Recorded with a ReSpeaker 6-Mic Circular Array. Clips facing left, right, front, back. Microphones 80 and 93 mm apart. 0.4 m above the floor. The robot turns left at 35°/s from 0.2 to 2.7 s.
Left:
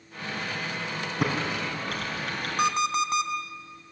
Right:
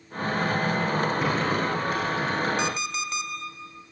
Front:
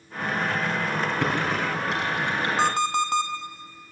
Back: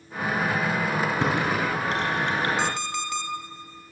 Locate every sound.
1.2 s typing on a keyboard: 110° left, 4.5 m; by 2.5 s 65° left, 4.5 m
2.6 s an alarm clock: 45° left, 1.8 m; by 3.3 s 40° left, 1.8 m